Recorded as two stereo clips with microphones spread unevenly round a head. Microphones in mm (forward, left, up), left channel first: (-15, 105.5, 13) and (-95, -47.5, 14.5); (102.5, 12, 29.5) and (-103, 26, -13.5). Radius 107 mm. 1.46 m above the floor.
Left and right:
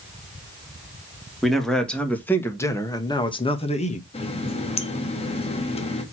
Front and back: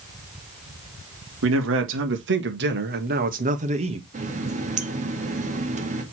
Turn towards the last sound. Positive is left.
turn(degrees=115)